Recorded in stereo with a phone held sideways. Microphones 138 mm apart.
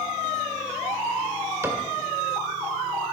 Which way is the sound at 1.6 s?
20° right (ahead or behind).